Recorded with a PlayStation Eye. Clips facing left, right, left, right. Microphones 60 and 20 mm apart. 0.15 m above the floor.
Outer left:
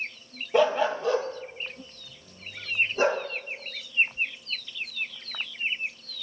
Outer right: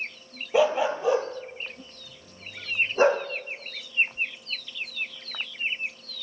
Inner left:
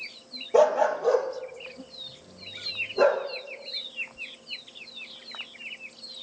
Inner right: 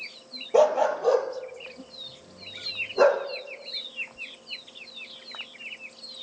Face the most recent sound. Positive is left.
turn(degrees=-35)  # may be behind; listen again after turning